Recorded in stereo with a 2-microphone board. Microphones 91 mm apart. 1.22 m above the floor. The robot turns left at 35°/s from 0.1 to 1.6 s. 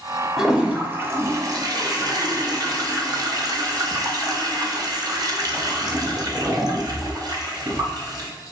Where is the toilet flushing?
5° right, 0.7 m; by 8.3 s 45° right, 0.7 m.